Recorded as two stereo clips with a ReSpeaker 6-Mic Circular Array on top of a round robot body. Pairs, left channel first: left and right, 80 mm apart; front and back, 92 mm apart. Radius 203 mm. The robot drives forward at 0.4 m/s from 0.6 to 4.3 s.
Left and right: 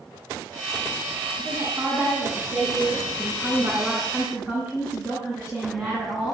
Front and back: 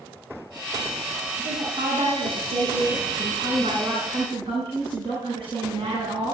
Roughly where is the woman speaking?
Behind right.